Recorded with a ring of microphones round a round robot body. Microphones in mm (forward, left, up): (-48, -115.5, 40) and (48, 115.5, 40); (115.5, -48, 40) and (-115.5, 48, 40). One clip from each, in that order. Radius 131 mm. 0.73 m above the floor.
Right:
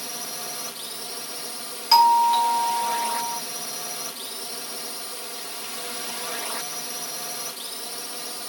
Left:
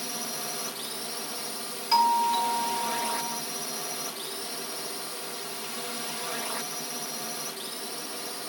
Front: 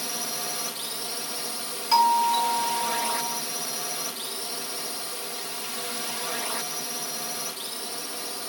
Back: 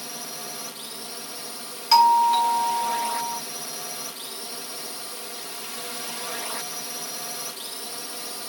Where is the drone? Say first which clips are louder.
Right 1 dB, front 4 dB; 55° right; by 8.5 s 125° right.